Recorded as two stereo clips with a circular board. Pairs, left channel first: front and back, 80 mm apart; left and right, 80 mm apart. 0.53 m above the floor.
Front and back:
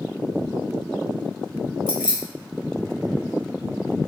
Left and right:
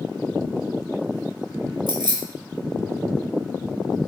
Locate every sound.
1.9 s keys jangling: 105° right, 1.5 m